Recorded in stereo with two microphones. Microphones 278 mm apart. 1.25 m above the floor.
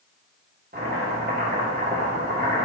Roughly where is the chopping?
Right.